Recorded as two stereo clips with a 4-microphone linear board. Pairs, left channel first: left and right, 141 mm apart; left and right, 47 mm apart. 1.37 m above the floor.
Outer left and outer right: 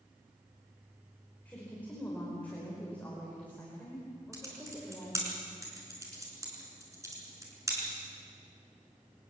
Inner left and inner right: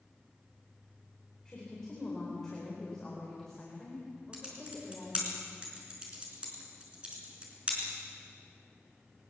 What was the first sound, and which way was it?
A woman speaking, 10° left (ahead or behind).